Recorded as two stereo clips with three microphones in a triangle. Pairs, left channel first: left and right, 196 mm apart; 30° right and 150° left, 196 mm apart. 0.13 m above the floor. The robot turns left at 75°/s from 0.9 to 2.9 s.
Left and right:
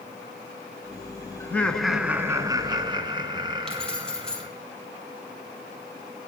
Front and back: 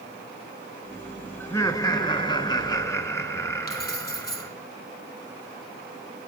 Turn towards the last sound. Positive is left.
turn(degrees=5)